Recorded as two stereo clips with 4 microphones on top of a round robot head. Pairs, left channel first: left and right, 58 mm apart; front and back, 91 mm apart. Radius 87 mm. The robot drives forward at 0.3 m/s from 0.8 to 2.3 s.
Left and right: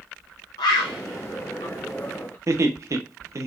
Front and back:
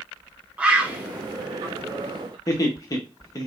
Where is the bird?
105° left, 0.5 m; by 2.4 s 145° left, 0.8 m.